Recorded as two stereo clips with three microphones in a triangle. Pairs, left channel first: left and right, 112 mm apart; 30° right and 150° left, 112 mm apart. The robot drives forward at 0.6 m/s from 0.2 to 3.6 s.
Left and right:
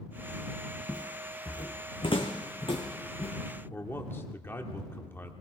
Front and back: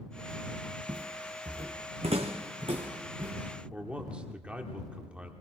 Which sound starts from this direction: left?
A man speaking, at 3.7 s.